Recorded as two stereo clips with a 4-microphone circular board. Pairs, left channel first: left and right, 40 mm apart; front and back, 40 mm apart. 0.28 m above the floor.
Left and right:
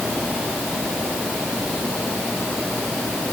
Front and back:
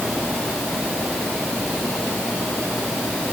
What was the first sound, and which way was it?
Only background noise.